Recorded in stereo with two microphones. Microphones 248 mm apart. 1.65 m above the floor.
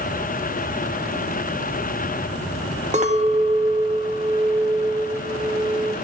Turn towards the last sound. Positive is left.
turn(degrees=-30)  # may be behind; listen again after turning